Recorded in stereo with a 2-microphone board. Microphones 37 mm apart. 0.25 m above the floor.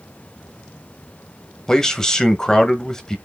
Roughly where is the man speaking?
Centre.